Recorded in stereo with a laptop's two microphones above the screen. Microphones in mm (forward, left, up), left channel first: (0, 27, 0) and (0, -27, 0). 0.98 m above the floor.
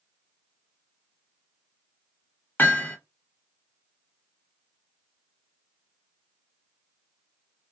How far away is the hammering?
About 0.9 m.